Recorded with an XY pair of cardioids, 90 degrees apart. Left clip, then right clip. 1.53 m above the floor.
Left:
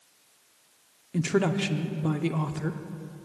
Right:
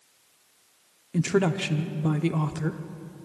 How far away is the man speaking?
About 0.8 m.